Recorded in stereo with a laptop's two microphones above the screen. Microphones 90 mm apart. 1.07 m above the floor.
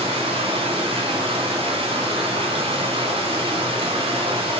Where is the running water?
80° right, 2.5 m.